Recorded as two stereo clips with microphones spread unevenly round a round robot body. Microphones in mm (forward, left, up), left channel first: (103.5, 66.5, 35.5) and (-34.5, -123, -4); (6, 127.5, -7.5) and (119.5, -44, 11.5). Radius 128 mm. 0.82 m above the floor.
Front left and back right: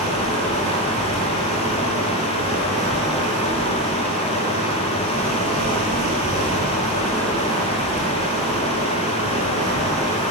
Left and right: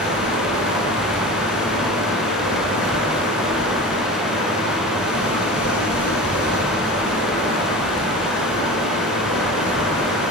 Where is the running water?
170° left, 5.5 m.